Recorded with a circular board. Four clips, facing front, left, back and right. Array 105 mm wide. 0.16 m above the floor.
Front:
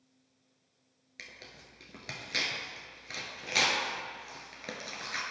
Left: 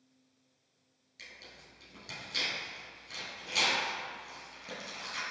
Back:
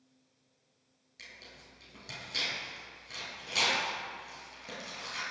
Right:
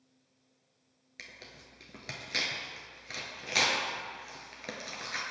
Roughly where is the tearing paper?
Ahead right.